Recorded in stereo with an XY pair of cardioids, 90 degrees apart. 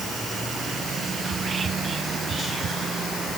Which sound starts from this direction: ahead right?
Whispering, at 1.2 s.